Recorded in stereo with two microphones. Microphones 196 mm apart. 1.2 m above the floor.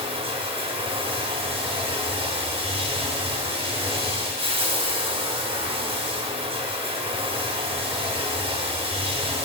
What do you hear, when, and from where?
0.0 s running water: 25° right (ahead or behind), 1.2 m